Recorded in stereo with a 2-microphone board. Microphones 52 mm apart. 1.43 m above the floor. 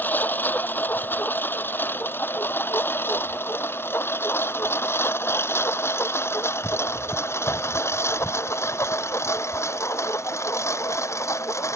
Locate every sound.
0.0 s a lawn mower: 30° left (ahead or behind); by 11.8 s 55° left (ahead or behind)